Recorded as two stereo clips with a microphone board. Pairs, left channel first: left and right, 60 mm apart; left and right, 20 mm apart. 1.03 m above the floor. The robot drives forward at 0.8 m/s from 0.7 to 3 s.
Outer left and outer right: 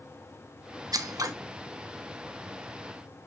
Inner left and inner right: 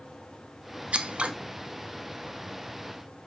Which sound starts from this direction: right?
Scissors, at 0.9 s.